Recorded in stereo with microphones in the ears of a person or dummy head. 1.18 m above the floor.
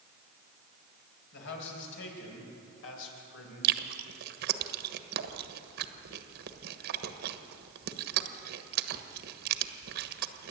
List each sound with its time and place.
1.3 s a man speaking: 65° left (ahead or behind), 5.5 m; by 3.8 s 80° left, 4.5 m
3.6 s chewing: 55° right (ahead or behind), 1.3 m